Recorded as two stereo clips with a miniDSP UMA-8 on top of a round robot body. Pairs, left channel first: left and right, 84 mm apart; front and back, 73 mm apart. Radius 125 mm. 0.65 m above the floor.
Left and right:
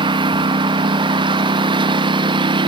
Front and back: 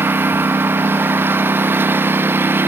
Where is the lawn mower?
120° right.